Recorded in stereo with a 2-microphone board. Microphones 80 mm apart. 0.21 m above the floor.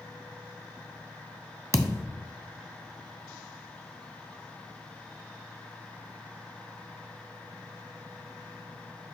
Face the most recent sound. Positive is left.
turn(degrees=-40)  # may be behind; listen again after turning